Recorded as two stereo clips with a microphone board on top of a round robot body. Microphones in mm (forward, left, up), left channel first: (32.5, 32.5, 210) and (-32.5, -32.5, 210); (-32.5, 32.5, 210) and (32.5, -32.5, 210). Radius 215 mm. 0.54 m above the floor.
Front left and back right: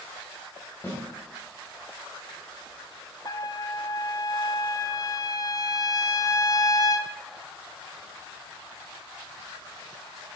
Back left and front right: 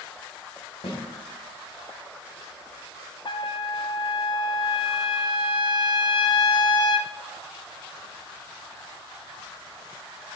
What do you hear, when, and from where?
0.8 s a snare drum: 115° left, 3 m
3.2 s a trumpet: 95° left, 0.5 m